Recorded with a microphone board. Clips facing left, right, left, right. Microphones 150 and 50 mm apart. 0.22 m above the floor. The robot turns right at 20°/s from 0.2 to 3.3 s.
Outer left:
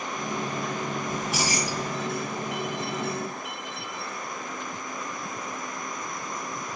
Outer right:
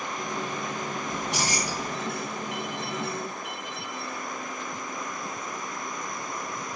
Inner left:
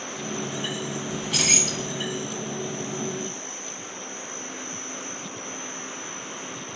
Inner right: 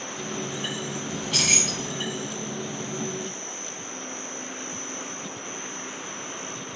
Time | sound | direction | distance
1.1 | keys jangling | 5° left (ahead or behind) | 1.3 m